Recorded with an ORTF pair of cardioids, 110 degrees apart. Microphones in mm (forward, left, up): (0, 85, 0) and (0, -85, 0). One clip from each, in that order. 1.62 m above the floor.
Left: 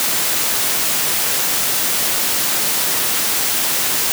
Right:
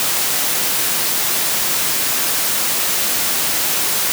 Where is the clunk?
I don't hear a clunk.